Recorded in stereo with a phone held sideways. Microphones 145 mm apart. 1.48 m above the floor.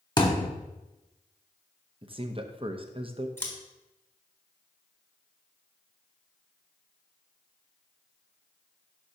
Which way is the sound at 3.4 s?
15° left (ahead or behind).